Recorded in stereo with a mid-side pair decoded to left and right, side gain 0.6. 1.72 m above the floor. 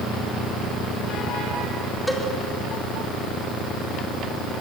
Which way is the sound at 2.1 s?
5° left.